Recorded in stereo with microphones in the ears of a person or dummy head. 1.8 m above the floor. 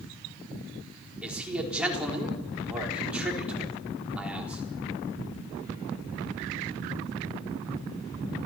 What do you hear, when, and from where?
1.2 s a man speaking: 10° right (ahead or behind), 4.5 m